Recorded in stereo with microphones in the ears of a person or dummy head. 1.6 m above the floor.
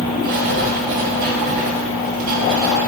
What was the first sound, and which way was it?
Writing, 55° right (ahead or behind).